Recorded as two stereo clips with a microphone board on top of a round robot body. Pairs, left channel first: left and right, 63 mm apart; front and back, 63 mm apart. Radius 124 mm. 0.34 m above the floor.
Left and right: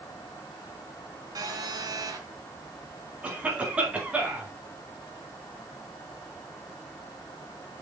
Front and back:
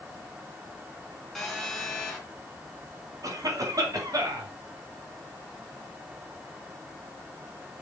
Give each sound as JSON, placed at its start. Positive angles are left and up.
{"t": 1.4, "sound": "a phone buzzing", "azimuth_deg": -85, "distance_m": 3.5}
{"t": 3.2, "sound": "a cough", "azimuth_deg": -155, "distance_m": 4.5}